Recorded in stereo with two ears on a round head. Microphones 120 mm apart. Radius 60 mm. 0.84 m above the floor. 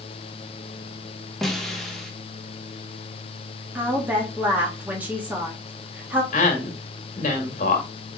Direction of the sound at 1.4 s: Centre (ahead or behind).